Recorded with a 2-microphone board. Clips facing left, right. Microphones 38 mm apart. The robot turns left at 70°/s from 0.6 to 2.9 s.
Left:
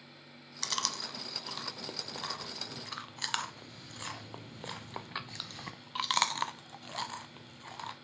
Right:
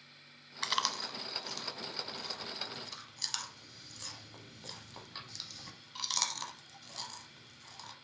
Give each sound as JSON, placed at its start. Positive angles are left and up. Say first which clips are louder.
{"t": 0.6, "sound": "chewing", "louder": "right 3 dB", "side_deg": -30, "distance_m": 0.5}